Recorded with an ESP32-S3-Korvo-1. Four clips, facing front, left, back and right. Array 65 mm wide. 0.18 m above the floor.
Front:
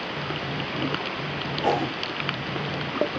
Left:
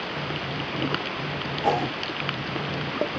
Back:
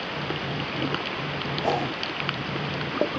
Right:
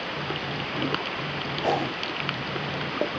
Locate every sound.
1.6 s a whoosh: 20° right, 1.7 m